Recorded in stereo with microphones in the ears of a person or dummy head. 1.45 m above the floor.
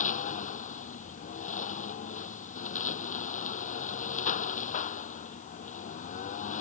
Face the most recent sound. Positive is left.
turn(degrees=45)  # may be behind; listen again after turning